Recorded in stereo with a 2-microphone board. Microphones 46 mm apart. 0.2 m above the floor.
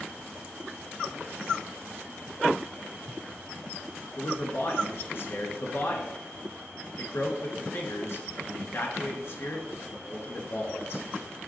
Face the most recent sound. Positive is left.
turn(degrees=60)  # may be behind; listen again after turning